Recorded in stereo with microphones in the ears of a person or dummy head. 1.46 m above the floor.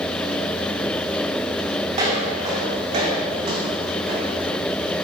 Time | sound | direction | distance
1.9 | footsteps | 30° right (ahead or behind) | 3 m